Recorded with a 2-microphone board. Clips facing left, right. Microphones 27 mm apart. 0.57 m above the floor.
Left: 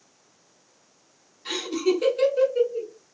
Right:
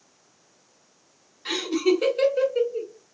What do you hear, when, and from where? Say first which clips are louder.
1.4 s laughter: right 2 dB; 20° right (ahead or behind), 1.6 m